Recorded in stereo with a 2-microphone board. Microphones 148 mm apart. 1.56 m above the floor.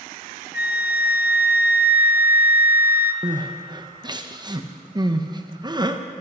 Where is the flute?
80° left, 0.6 m.